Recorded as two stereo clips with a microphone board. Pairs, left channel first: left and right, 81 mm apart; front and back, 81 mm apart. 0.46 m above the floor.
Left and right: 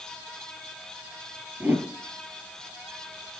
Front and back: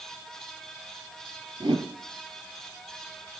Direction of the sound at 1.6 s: 155° right.